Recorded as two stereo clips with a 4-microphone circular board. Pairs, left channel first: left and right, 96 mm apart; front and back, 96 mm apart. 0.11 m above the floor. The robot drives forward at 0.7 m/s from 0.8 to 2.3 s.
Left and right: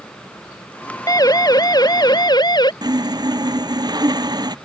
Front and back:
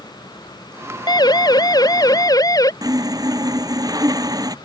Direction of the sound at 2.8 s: 130° right.